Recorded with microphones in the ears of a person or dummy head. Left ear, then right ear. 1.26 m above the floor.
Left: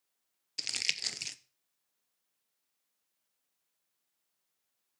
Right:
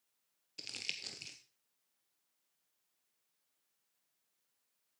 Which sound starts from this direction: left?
Crumpling, at 0.6 s.